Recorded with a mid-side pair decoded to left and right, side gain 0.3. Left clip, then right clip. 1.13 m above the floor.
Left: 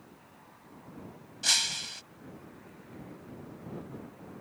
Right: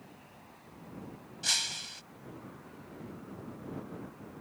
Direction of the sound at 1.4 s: 45° left.